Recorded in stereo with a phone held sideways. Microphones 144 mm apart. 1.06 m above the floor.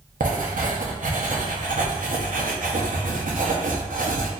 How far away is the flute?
I don't hear a flute.